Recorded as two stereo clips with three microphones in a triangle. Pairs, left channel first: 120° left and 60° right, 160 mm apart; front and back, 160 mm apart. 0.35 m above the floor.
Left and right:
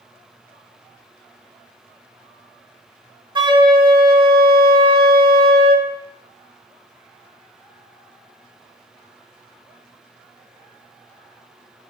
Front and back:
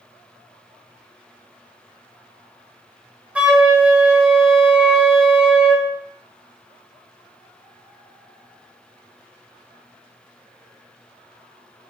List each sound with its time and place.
3.4 s a flute: 105° right, 0.9 m